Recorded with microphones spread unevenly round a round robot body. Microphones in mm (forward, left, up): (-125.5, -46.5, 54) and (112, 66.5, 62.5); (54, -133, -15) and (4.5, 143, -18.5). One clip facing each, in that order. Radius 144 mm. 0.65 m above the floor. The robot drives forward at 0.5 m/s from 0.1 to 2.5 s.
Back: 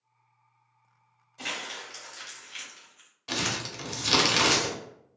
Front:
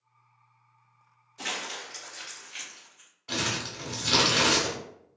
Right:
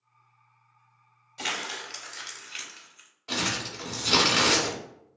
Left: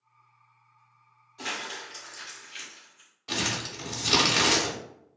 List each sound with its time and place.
1.4 s crumpling: 60° right, 1.0 m; by 3.1 s 95° right, 0.9 m
3.3 s crumpling: 175° left, 0.5 m